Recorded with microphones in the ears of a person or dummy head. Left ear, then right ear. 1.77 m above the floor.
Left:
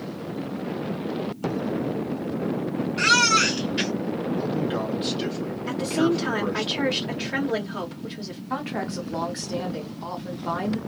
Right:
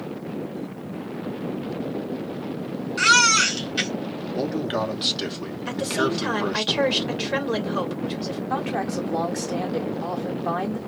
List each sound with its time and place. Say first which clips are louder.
3.0 s a baby crying: right 2 dB; 45° right (ahead or behind), 2.0 m
4.3 s a man speaking: right 5 dB; 45° right (ahead or behind), 0.9 m
5.7 s a woman speaking: even; 40° right (ahead or behind), 1.9 m
8.5 s a woman speaking: right 2 dB; 15° right (ahead or behind), 0.9 m